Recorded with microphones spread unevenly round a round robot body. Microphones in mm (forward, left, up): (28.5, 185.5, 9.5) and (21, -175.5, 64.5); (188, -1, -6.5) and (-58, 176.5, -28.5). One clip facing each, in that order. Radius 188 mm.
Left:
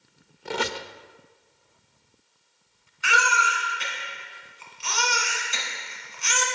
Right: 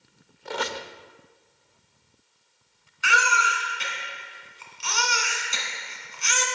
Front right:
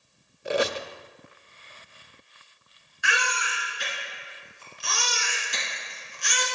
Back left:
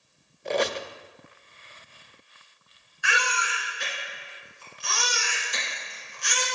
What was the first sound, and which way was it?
A squeak, 45° left.